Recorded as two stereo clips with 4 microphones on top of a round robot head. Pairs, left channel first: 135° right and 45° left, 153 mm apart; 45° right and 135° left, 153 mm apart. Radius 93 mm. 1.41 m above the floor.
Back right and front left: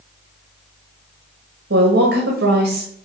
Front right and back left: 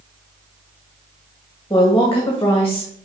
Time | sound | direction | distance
1.7 | a woman speaking | 30° left | 1.7 m